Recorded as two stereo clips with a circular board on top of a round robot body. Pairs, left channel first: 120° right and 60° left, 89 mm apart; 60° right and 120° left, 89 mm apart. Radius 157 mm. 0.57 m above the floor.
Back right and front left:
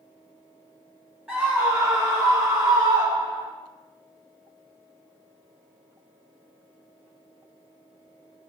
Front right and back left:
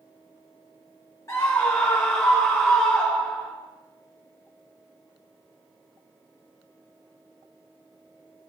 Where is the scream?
20° right, 1.8 m; by 3.5 s 25° left, 4.5 m.